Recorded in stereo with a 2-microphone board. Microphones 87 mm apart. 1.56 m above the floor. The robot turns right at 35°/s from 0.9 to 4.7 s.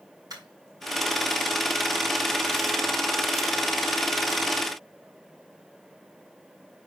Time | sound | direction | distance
0.3 | a dropped coin | 45° right (ahead or behind) | 3 m